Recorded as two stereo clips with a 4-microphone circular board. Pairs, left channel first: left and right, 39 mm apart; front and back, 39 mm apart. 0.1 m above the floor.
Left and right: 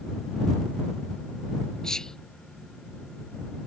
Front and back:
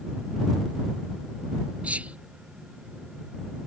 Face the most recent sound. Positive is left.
turn(degrees=155)